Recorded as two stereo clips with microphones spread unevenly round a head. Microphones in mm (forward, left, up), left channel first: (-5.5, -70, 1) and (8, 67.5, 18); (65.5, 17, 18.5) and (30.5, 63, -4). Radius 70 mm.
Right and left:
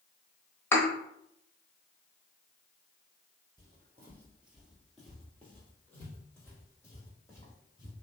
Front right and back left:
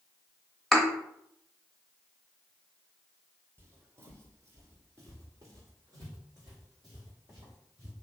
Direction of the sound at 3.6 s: 70° left.